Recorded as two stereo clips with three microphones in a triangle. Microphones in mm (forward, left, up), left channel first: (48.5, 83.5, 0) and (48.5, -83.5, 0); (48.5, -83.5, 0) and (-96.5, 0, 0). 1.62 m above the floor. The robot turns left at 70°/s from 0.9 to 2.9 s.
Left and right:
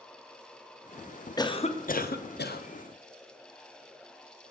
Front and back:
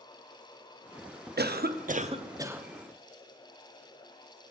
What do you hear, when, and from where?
1.4 s a cough: 155° left, 0.6 m; by 2.6 s 65° left, 0.6 m